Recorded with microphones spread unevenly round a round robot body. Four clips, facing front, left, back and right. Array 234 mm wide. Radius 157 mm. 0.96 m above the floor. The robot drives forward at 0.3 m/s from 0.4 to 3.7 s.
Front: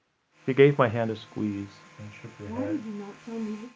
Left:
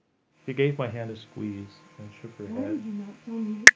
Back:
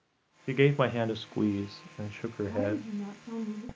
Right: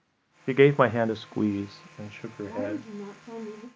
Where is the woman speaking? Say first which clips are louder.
Left 2 dB, front 2 dB; 80° left, 1.4 m; by 3.7 s 100° left, 1.4 m.